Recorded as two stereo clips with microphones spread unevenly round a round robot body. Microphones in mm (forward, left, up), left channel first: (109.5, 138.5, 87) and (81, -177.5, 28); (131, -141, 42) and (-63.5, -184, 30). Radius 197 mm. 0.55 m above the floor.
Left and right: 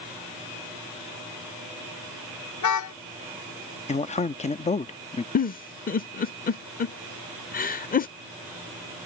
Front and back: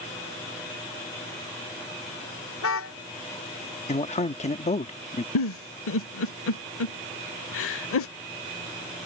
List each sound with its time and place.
2.6 s a car horn: 55° left
3.9 s a man speaking: 15° left
5.3 s a giggle: 20° left